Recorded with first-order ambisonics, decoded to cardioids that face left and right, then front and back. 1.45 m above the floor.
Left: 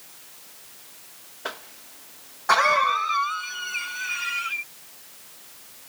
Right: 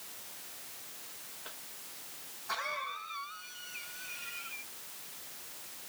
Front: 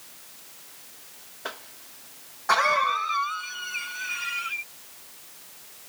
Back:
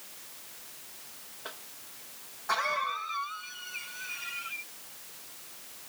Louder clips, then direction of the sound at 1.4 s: Left 17 dB, front 8 dB; 60° left.